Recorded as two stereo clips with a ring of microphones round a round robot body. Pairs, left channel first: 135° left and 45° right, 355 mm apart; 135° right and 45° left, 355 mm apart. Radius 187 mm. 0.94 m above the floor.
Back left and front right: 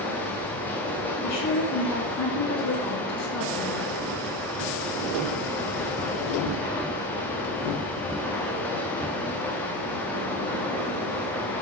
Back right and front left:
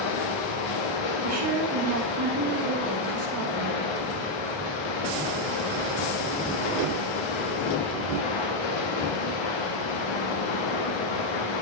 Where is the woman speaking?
90° left, 1.9 m.